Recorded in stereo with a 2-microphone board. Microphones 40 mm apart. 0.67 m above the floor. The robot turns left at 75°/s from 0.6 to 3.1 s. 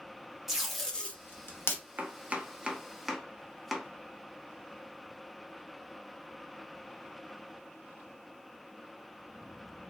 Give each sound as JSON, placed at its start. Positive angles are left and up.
{"t": 0.5, "sound": "tape being pulled", "side_deg": -10, "distance_m": 0.7}
{"t": 2.0, "sound": "chopping", "side_deg": -40, "distance_m": 0.6}